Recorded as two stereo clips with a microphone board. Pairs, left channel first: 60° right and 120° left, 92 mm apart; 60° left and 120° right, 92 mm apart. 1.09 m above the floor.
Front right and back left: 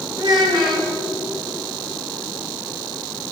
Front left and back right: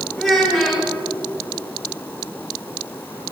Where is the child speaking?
145° left, 3 m.